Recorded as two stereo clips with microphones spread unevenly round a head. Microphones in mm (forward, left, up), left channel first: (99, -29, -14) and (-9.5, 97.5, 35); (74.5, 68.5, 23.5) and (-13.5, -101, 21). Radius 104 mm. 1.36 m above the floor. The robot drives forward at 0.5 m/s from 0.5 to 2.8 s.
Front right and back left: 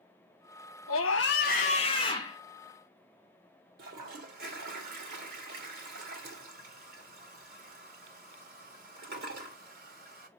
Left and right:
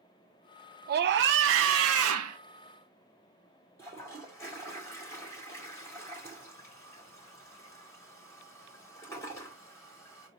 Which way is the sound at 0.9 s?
80° right.